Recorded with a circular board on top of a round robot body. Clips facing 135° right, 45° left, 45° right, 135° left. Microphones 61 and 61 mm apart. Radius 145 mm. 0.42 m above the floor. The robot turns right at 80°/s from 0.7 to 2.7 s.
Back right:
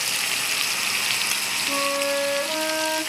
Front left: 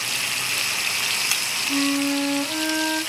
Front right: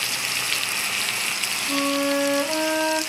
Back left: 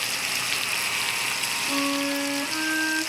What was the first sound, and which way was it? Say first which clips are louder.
A flute: front left 2 dB, front right 4 dB; 145° right.